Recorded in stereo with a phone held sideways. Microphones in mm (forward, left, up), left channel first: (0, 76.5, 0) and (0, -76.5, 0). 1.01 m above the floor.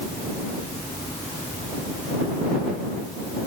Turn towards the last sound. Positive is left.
No sound to turn to.